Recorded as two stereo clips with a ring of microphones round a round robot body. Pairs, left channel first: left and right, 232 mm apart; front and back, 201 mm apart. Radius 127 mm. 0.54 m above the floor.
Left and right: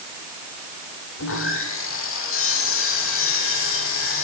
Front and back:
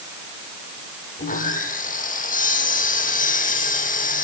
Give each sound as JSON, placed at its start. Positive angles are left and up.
{"t": 1.2, "sound": "sawing", "azimuth_deg": 50, "distance_m": 7.5}